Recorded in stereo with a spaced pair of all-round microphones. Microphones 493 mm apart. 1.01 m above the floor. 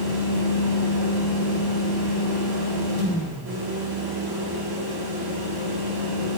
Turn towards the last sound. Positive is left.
turn(degrees=-50)  # may be behind; listen again after turning